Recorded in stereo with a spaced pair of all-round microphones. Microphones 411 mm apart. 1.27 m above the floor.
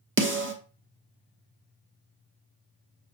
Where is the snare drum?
30° right (ahead or behind), 0.6 m.